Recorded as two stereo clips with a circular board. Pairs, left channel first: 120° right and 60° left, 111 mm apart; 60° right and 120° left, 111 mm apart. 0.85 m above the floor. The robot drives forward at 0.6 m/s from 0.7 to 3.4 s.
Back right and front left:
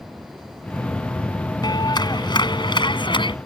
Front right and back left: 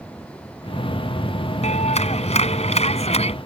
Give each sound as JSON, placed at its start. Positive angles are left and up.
{"t": 1.6, "sound": "a clap", "azimuth_deg": -70}